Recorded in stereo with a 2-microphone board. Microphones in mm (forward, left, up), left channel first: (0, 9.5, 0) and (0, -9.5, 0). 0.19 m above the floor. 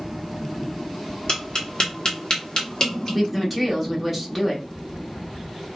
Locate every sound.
1.3 s tapping: 45° left (ahead or behind), 1.3 m
3.1 s a woman speaking: centre (ahead or behind), 1.2 m